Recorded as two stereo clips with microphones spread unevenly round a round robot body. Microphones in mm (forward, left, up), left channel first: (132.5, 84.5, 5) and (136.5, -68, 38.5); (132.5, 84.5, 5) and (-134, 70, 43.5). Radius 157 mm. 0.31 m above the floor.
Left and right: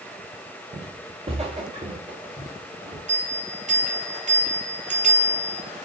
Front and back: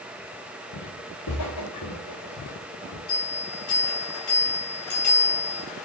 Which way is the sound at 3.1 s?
45° right.